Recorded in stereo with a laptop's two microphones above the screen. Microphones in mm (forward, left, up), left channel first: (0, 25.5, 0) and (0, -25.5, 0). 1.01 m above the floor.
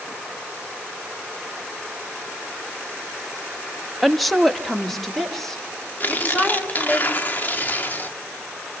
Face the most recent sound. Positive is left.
turn(degrees=35)  # may be behind; listen again after turning